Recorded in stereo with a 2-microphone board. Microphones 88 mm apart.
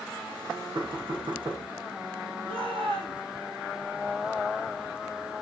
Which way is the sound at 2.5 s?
75° right (ahead or behind).